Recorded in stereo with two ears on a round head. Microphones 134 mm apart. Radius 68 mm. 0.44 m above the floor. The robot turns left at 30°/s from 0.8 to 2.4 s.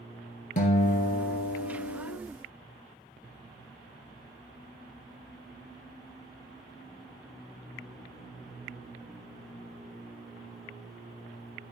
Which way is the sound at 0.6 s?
120° left.